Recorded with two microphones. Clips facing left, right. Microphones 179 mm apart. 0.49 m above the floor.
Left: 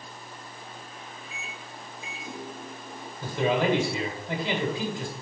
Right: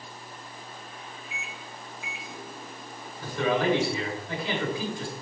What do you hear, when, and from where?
1.3 s a microwave: 30° left (ahead or behind), 0.9 m
3.2 s a man speaking: 20° left (ahead or behind), 2 m